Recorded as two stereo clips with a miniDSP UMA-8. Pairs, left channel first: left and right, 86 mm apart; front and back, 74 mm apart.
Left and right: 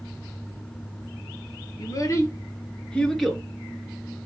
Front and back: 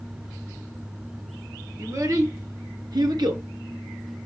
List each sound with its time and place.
1.8 s a child speaking: 130° left, 2.5 m; by 3.4 s 170° right, 2 m